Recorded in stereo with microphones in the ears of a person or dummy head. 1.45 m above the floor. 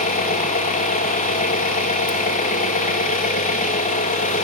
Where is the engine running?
40° left (ahead or behind), 1.6 m.